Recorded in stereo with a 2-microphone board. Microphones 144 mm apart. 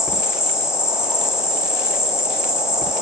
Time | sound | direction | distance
0.0 | an insect | 5° right (ahead or behind) | 3 m